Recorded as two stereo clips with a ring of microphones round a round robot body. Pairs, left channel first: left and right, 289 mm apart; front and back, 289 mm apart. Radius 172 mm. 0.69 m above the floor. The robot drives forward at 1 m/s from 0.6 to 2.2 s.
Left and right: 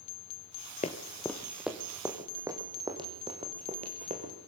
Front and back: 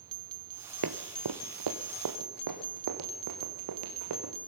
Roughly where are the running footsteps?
Behind left.